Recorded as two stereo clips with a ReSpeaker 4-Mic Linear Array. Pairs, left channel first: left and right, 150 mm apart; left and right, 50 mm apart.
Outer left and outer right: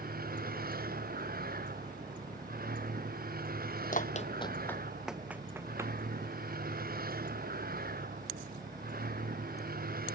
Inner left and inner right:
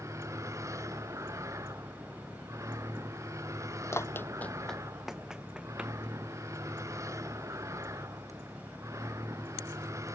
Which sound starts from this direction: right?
A vehicle, at 0.0 s.